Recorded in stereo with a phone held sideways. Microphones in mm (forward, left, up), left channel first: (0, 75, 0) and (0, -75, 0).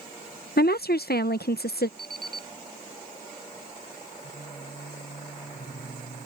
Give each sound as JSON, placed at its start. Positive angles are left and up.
{"t": 0.6, "sound": "a woman speaking", "side_deg": 80}
{"t": 2.0, "sound": "an alarm clock", "side_deg": -65}
{"t": 4.2, "sound": "singing", "side_deg": 70}